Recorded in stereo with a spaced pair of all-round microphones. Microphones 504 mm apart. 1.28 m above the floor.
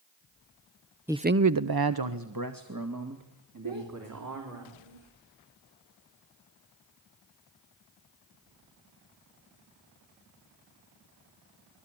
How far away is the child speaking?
About 3 m.